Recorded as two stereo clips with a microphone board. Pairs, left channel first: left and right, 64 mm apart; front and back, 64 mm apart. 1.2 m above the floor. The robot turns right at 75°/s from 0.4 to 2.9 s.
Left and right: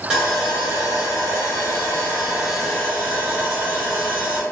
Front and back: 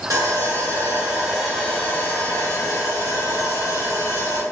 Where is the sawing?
170° right, 1.1 m; by 4.4 s 20° left, 1.1 m.